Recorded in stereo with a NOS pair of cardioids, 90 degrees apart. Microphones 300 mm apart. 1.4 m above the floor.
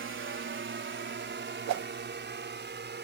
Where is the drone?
40° right; by 3.1 s 35° right.